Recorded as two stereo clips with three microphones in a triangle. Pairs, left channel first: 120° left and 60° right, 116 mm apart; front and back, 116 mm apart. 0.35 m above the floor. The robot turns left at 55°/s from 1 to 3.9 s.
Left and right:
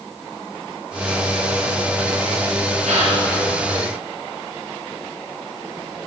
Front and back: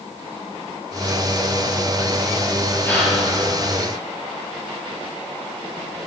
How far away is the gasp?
About 5 m.